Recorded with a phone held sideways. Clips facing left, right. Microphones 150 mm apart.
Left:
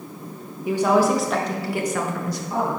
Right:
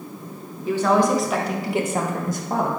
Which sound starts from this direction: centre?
A woman speaking, at 0.7 s.